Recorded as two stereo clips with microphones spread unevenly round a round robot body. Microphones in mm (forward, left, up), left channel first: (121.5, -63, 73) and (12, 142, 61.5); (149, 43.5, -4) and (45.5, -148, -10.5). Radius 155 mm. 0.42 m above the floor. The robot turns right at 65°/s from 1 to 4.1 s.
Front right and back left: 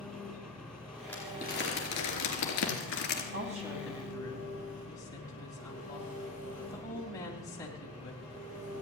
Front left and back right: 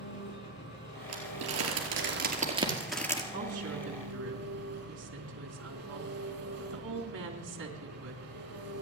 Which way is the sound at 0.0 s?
25° left.